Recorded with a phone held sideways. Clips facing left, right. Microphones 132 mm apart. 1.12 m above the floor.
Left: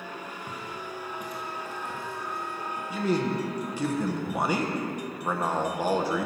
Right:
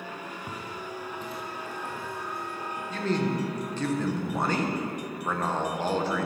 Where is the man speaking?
10° left (ahead or behind), 0.9 m.